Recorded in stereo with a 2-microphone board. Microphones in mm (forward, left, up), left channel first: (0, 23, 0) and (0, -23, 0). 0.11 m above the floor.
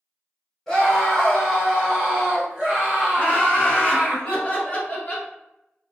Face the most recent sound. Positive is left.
turn(degrees=30)  # may be behind; listen again after turning